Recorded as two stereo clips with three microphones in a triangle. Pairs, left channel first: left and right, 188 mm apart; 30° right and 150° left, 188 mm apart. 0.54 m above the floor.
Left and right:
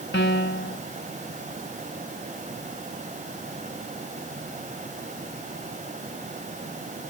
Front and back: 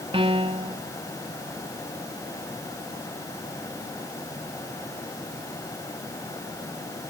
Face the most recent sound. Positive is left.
turn(degrees=90)